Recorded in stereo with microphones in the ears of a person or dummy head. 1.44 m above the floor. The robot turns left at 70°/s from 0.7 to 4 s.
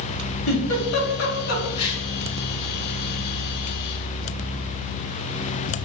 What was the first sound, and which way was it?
A giggle, 70° left (ahead or behind).